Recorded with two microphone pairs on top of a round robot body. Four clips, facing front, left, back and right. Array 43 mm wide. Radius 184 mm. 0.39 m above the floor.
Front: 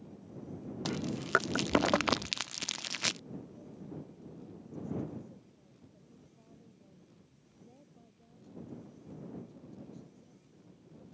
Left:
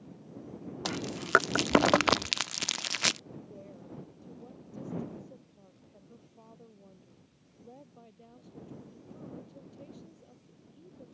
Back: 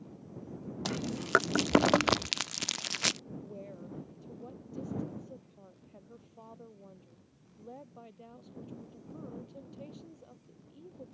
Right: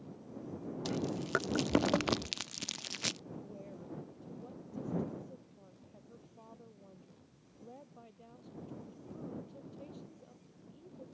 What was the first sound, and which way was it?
Chewing, 95° left.